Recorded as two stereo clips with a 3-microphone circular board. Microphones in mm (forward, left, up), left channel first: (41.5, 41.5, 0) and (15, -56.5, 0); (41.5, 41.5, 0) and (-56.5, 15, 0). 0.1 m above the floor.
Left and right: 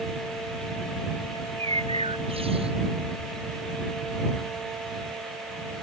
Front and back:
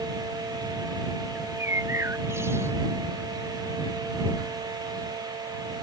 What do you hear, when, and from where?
1.4 s a bird: 100° right